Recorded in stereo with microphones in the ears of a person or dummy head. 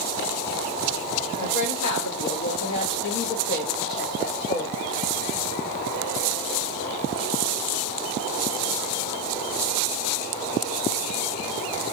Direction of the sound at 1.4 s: 85° left.